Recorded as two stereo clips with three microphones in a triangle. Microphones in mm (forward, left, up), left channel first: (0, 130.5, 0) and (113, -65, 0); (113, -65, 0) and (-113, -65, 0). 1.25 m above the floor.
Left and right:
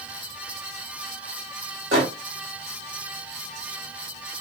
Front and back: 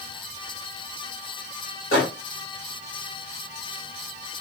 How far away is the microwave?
About 1.5 m.